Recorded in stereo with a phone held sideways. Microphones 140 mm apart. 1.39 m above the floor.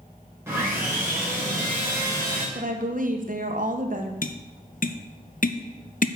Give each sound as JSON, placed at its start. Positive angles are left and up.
{"t": 0.5, "sound": "sawing", "side_deg": -15, "distance_m": 4.0}
{"t": 2.5, "sound": "a woman speaking", "side_deg": -65, "distance_m": 1.3}
{"t": 4.2, "sound": "tapping", "side_deg": 65, "distance_m": 0.7}